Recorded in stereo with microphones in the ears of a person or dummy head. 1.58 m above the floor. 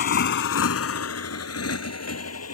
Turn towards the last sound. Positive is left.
turn(degrees=85)